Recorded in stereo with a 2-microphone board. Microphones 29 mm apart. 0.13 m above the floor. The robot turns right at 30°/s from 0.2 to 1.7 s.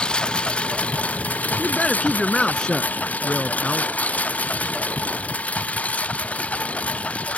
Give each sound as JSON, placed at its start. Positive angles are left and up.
{"t": 0.0, "sound": "a lawn mower", "side_deg": 35}
{"t": 1.6, "sound": "a man speaking", "side_deg": 30}